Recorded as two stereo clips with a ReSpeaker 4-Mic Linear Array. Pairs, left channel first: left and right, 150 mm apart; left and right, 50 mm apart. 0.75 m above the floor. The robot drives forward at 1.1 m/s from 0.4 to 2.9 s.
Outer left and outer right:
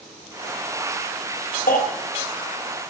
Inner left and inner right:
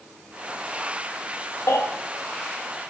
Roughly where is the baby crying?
Left.